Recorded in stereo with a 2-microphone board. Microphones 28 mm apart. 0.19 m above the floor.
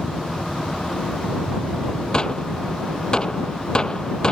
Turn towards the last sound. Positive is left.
turn(degrees=30)  # may be behind; listen again after turning